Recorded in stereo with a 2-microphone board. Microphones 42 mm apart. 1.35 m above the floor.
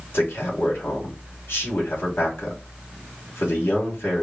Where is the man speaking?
65° left (ahead or behind), 2 m.